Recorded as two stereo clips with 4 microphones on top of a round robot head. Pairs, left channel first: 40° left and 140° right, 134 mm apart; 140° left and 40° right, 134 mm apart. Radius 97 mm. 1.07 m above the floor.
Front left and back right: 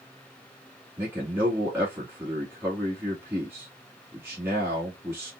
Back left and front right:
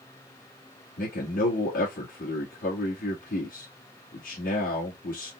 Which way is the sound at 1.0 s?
145° left.